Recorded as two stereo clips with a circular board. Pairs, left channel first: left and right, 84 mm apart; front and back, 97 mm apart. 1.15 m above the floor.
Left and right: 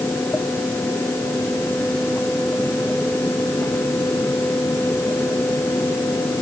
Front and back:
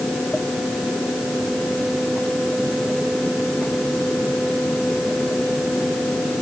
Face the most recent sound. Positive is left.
No sound to turn to.